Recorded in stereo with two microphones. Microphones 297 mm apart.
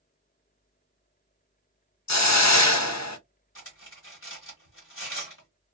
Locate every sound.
2.1 s a hiss: 65° left (ahead or behind), 0.5 m
3.5 s cutlery clinking: 45° left (ahead or behind), 1.2 m